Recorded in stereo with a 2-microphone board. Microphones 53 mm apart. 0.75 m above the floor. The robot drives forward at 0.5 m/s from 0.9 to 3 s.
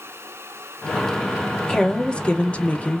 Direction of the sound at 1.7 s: 15° left (ahead or behind).